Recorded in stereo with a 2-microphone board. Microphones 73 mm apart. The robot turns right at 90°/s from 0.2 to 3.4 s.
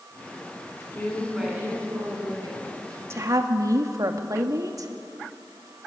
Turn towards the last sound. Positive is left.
turn(degrees=-55)  # may be behind; listen again after turning